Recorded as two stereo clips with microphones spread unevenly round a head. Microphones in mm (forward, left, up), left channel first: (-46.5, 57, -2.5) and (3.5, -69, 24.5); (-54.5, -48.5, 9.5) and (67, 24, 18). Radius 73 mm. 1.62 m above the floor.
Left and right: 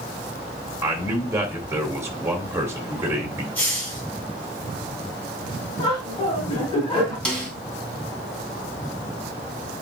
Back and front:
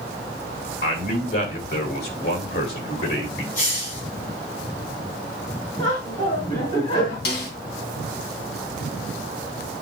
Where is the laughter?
165° left, 4 m.